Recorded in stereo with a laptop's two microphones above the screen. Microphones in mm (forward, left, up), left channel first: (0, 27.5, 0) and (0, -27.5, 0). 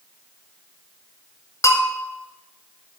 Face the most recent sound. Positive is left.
turn(degrees=65)  # may be behind; listen again after turning